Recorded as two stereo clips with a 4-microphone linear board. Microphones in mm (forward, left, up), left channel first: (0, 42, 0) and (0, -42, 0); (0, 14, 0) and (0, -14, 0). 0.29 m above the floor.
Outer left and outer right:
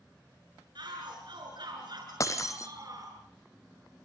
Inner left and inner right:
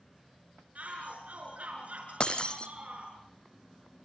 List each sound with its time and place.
0.8 s a shout: 70° right (ahead or behind), 5 m; by 3.1 s 50° right (ahead or behind), 5.5 m
2.2 s breaking glass: 40° left (ahead or behind), 2 m